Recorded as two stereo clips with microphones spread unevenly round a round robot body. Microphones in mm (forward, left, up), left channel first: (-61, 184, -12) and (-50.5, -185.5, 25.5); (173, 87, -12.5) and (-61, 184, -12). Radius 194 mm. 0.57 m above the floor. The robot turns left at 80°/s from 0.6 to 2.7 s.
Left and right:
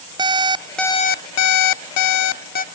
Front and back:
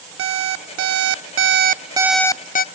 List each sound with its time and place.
0.2 s an alarm clock: 170° right, 0.5 m; by 2.6 s 25° left, 0.5 m